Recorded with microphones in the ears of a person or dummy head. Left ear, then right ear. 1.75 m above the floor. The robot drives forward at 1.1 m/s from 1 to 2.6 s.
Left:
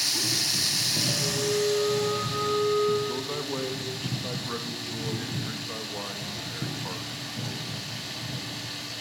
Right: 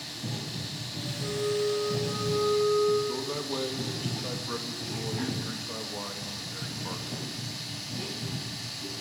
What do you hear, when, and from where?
0.0 s running water: 55° left (ahead or behind), 0.9 m; by 9.0 s 20° left (ahead or behind), 2.5 m
1.2 s a flute: 35° left (ahead or behind), 8 m; by 3.0 s 30° left (ahead or behind), 9.5 m
3.1 s a man speaking: 10° left (ahead or behind), 3 m